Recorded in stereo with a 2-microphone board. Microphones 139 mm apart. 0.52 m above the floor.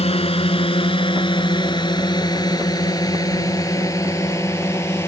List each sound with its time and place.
0.0 s a drone: 45° left (ahead or behind); by 5.1 s 20° left (ahead or behind)